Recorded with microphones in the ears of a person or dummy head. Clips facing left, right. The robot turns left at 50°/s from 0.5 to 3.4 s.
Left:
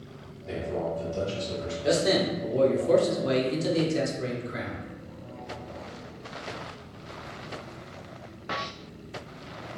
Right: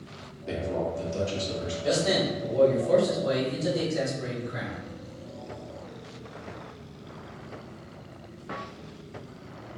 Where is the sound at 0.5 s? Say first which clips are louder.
Right 1 dB; 75° right, 1.1 m; by 1.7 s 135° right, 1.1 m.